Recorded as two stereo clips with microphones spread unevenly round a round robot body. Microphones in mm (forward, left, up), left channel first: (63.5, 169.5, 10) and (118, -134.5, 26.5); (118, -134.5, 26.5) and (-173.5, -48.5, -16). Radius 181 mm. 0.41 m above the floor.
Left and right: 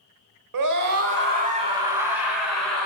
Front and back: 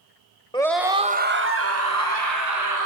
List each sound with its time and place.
0.5 s a scream: 95° right, 1.3 m; by 2.9 s 170° right, 4 m